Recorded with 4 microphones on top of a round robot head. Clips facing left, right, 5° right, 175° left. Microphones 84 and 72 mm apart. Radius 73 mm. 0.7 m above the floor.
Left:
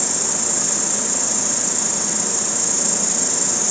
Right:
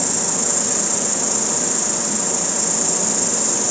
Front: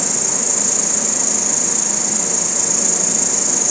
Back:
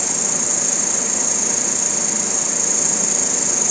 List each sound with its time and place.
0.0 s an insect: 10° right, 3 m